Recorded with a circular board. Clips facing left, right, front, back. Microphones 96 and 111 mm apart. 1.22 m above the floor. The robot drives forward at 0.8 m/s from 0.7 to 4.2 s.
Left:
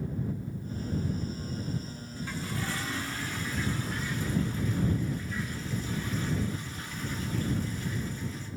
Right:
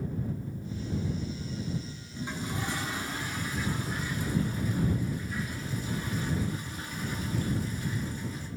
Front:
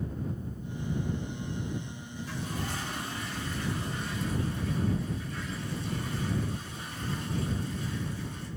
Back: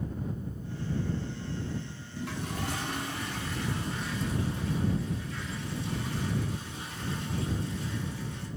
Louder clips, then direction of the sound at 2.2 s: Right 1 dB, back 1 dB; 160° right.